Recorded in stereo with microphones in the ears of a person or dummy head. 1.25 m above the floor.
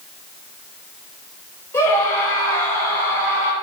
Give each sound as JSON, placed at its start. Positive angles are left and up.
{"t": 1.7, "sound": "a scream", "side_deg": 15, "distance_m": 7.5}